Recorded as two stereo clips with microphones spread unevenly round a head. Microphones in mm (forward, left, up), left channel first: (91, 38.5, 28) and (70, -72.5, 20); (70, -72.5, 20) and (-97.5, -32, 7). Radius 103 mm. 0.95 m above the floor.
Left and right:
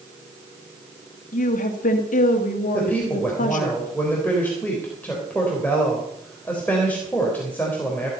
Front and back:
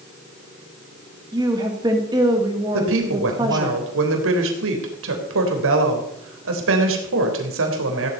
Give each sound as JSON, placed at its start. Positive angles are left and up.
{"t": 1.3, "sound": "a woman speaking", "azimuth_deg": 95, "distance_m": 2.0}
{"t": 2.7, "sound": "a woman speaking", "azimuth_deg": 160, "distance_m": 3.5}